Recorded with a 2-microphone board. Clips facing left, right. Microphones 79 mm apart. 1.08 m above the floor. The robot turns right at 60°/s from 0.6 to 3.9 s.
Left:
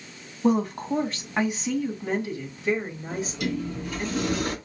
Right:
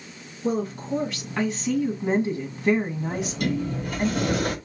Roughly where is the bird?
I don't hear a bird.